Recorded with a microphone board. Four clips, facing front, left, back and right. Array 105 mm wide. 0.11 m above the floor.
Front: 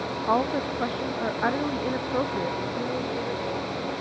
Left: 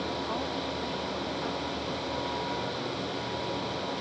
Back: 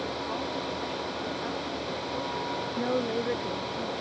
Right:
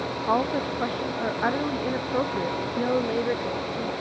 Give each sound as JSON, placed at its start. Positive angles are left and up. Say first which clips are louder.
{"t": 0.3, "sound": "a woman speaking", "louder": "right 8 dB, front 8 dB", "azimuth_deg": -45}
{"t": 2.8, "sound": "a woman speaking", "louder": "right 10 dB, back 1 dB", "azimuth_deg": -105}